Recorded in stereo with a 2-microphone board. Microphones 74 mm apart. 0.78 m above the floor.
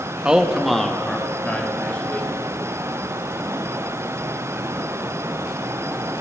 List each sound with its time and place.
0.2 s a man speaking: 15° right (ahead or behind), 0.7 m; by 2.3 s 20° left (ahead or behind), 1.9 m